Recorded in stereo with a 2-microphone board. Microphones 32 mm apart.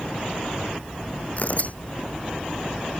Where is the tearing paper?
45° left (ahead or behind).